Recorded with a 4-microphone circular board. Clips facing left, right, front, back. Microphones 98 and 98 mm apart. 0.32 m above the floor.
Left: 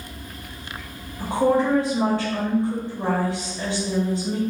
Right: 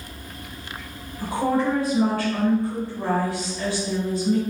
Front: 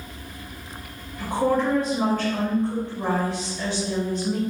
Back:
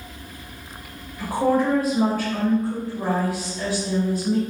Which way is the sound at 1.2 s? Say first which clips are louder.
Left 3 dB, back 2 dB; 110° left.